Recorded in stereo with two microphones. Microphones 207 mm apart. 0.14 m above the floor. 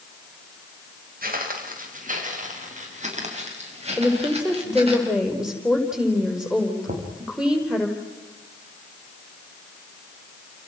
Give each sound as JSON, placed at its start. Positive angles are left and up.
{"t": 1.2, "sound": "footsteps", "side_deg": -45, "distance_m": 5.5}
{"t": 4.0, "sound": "a woman speaking", "side_deg": -5, "distance_m": 5.0}
{"t": 6.9, "sound": "knocking", "side_deg": -45, "distance_m": 5.5}